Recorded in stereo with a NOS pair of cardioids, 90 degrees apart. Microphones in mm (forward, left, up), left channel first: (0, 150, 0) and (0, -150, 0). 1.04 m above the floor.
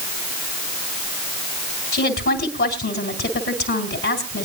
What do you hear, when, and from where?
1.9 s a woman speaking: 40° left, 3.5 m